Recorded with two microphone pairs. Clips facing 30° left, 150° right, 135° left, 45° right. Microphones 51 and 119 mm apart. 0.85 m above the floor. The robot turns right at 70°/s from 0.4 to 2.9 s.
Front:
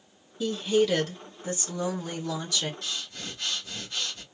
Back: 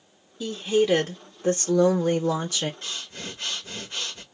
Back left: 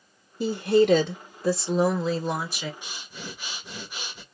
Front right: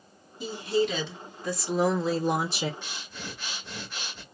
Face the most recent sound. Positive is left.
turn(degrees=-155)